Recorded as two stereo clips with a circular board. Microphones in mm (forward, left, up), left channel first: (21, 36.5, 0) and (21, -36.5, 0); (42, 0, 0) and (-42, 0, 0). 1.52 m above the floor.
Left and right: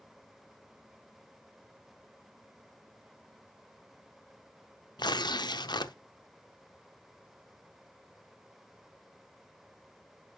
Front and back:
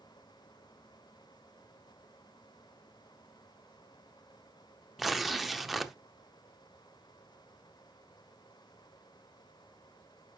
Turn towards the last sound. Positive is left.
turn(degrees=90)